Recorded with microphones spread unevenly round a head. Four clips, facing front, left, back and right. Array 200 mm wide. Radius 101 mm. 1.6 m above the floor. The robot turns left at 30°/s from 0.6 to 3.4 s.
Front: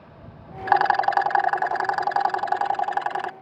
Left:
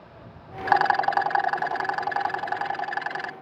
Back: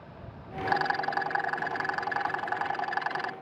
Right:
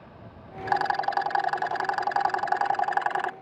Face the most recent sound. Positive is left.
turn(degrees=-55)